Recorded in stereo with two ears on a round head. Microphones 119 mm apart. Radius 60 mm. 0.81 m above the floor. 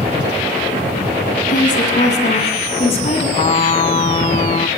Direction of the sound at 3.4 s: 40° left (ahead or behind).